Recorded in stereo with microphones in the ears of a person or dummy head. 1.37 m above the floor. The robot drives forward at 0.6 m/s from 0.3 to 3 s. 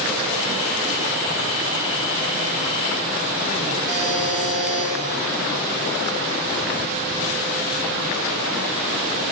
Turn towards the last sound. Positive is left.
turn(degrees=0)  # may be behind; listen again after turning